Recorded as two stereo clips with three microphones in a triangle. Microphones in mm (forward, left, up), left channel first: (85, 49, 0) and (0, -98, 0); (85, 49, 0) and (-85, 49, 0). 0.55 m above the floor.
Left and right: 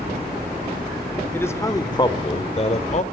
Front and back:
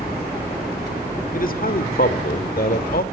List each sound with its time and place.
1.3 s a man speaking: 15° right, 1.6 m; by 3.0 s 20° left, 2.0 m